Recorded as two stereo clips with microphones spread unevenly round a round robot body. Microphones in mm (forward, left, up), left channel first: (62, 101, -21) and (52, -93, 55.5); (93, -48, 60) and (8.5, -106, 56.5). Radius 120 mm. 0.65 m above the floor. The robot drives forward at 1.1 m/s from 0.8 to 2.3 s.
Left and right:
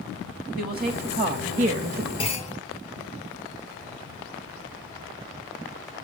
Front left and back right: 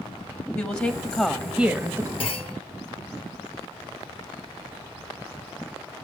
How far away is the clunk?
About 1.7 m.